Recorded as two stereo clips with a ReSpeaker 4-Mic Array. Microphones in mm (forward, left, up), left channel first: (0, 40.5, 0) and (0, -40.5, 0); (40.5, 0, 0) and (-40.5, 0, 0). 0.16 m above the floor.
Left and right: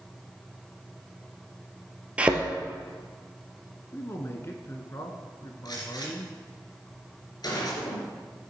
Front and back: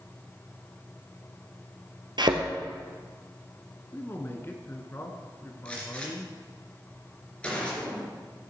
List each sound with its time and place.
2.2 s a thud: 165° right, 1.5 m
3.9 s a man speaking: 50° left, 1.6 m
5.7 s a gunshot: 75° left, 3 m